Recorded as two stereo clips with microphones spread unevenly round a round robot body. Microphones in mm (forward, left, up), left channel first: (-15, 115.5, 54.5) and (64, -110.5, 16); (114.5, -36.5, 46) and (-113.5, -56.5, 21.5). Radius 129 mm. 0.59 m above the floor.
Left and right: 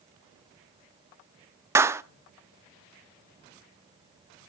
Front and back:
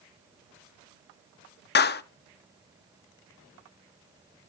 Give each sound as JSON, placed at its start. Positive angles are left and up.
{"t": 1.8, "sound": "a clap", "azimuth_deg": -10, "distance_m": 0.6}